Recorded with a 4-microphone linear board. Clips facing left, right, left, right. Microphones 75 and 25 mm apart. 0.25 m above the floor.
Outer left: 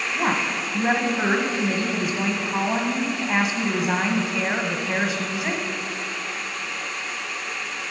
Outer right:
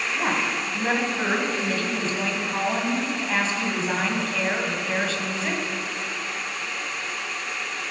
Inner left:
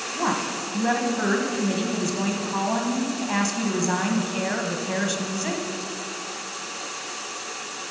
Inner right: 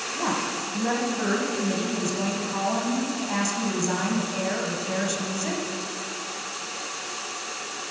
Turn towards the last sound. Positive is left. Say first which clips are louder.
# outer left 2 dB, inner left 2 dB
turn(degrees=15)  # may be behind; listen again after turning